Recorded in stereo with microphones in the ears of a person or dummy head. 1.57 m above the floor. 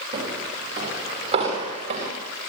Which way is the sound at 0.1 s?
15° right (ahead or behind).